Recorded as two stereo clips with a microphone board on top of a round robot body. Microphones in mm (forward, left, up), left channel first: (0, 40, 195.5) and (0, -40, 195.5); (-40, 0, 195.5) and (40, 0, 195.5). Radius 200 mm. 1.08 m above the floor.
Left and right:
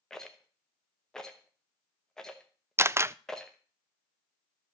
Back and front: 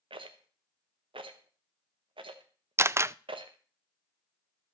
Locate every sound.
0.1 s a rattle: 5° left, 1.0 m
2.8 s a camera shutter: 45° right, 0.5 m